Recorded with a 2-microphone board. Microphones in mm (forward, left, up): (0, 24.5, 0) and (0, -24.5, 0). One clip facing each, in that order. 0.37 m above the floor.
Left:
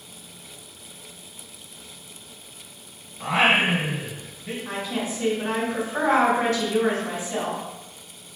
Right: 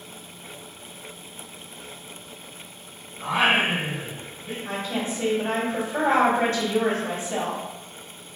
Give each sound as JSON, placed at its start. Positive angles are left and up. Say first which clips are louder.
{"t": 3.2, "sound": "singing", "louder": "left 1 dB", "side_deg": 75, "distance_m": 1.0}
{"t": 4.7, "sound": "a woman speaking", "louder": "right 1 dB", "side_deg": -35, "distance_m": 1.1}